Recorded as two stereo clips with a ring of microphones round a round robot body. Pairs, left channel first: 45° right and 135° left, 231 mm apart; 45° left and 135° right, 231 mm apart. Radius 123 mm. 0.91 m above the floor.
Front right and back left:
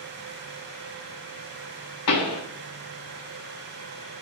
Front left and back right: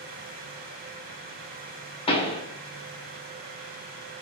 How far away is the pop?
About 0.8 m.